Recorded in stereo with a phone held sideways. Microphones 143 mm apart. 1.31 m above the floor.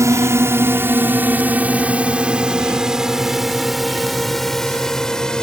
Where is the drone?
20° right (ahead or behind); by 5.4 s 5° left (ahead or behind).